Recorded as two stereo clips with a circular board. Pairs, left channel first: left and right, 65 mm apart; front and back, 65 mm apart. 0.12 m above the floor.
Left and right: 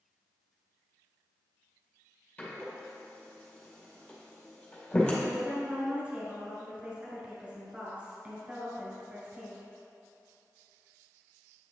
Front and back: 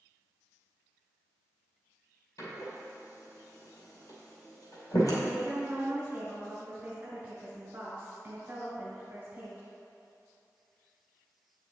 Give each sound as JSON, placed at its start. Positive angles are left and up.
{"t": 2.4, "sound": "a door slam", "azimuth_deg": 15, "distance_m": 2.5}
{"t": 5.2, "sound": "a woman speaking", "azimuth_deg": -145, "distance_m": 1.5}